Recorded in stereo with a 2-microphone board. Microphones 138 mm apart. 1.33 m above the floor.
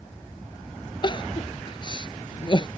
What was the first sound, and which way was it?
Crying, 35° left (ahead or behind).